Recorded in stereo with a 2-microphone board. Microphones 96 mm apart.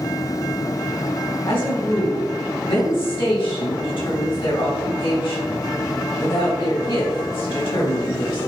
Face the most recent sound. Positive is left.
turn(degrees=65)  # may be behind; listen again after turning